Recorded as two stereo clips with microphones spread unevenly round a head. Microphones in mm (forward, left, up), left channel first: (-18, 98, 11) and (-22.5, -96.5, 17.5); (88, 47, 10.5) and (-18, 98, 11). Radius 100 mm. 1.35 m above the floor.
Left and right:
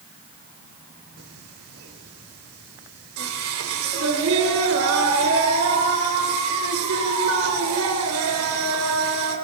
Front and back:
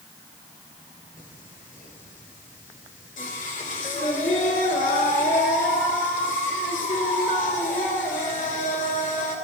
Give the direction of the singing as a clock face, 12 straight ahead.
2 o'clock.